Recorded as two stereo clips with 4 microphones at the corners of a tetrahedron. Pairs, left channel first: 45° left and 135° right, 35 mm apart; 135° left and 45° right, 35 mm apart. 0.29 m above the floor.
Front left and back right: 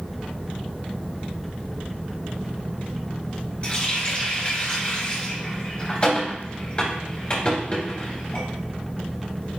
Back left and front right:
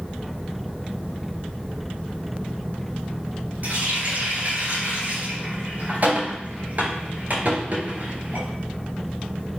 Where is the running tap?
10° right, 3.5 m.